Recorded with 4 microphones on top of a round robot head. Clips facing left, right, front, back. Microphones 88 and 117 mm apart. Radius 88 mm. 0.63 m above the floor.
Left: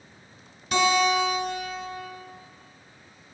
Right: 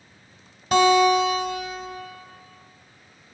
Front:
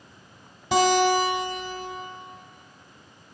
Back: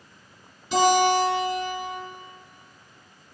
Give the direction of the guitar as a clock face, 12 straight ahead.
1 o'clock.